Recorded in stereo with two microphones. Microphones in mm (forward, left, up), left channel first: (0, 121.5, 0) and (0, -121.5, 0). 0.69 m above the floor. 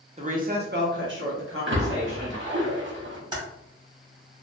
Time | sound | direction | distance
0.2 | a woman speaking | 25° right (ahead or behind) | 0.7 m
1.7 | a splash | 50° right (ahead or behind) | 0.9 m
3.3 | typing on a keyboard | 20° right (ahead or behind) | 1.5 m